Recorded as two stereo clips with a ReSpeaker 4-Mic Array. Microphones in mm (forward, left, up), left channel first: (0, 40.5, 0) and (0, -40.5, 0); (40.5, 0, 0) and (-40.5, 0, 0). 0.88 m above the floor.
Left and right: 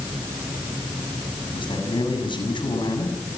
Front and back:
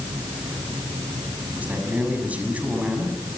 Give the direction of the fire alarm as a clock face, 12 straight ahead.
I don't hear a fire alarm.